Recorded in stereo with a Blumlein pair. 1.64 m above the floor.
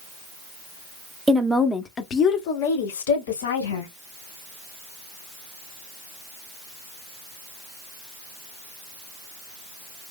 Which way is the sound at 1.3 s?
15° right.